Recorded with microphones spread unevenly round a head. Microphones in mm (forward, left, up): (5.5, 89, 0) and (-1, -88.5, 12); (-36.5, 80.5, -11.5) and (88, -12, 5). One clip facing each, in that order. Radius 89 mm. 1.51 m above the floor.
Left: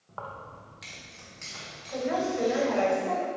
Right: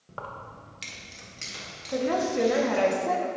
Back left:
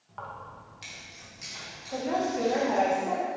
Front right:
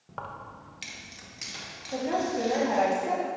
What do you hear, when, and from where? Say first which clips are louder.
0.1 s keys jangling: right 1 dB, front right 1 dB; 40° right, 0.9 m; by 2.9 s 45° right, 2.5 m
1.9 s a woman speaking: right 3 dB, even; 120° right, 1.6 m